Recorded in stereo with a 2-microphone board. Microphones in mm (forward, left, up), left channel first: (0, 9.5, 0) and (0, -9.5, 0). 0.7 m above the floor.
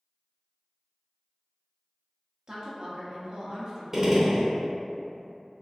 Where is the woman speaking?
30° right (ahead or behind), 0.6 m.